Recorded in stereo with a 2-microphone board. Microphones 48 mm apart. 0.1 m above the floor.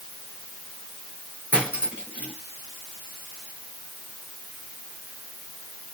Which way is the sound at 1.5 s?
30° right (ahead or behind).